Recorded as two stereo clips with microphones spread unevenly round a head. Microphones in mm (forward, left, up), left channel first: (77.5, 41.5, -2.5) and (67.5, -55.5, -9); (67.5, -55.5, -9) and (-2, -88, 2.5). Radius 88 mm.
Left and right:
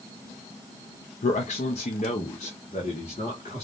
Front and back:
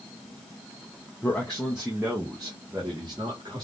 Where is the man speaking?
100° left, 0.6 m; by 3.6 s 135° left, 1.7 m.